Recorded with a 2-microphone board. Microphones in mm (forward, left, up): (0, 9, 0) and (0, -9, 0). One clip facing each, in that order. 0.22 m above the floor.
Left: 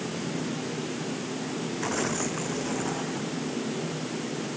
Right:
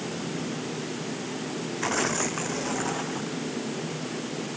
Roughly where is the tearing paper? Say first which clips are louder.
Right 3 dB; centre.